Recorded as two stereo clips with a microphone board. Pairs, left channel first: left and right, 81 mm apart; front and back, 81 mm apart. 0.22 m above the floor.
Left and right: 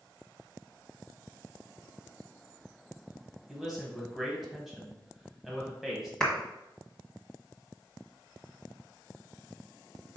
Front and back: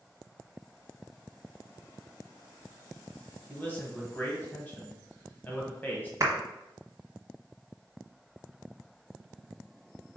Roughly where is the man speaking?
Ahead.